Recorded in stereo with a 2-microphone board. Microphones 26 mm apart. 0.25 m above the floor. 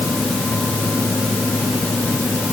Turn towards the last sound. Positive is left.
No sound to turn to.